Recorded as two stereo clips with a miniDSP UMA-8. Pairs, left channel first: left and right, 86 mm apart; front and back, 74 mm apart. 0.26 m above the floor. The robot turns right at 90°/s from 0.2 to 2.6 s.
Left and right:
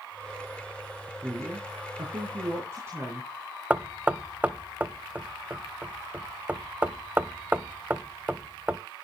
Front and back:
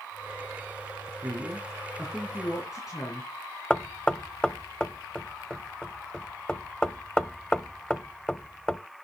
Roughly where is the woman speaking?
Behind.